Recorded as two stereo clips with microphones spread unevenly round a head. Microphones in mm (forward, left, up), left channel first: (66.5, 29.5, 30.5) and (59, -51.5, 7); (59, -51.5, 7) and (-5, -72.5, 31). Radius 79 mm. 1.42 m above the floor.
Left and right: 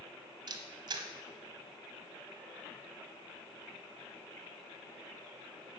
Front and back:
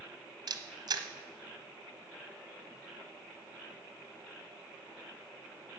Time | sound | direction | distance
0.5 | a camera shutter | 130° right | 1.3 m